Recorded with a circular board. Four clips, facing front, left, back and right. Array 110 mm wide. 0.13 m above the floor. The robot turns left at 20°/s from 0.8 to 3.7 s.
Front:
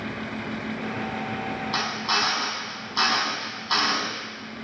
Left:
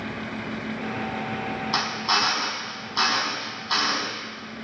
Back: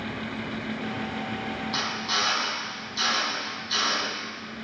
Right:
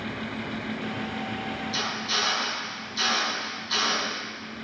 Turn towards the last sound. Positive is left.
turn(degrees=35)